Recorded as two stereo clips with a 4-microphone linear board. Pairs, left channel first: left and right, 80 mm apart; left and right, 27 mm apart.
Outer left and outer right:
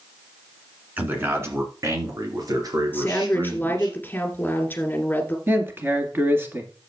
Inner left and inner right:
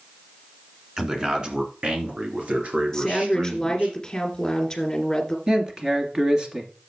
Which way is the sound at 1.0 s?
20° right (ahead or behind).